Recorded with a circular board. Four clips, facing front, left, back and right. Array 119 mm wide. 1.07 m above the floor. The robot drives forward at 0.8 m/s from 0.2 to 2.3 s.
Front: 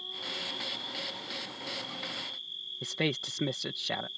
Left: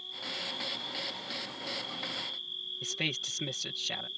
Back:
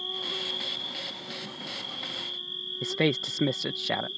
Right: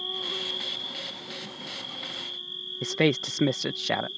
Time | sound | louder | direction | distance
0.0 | an insect | right 7 dB, back 5 dB | 120° right | ?
2.8 | a man speaking | right 15 dB, back 6 dB | 110° right | ?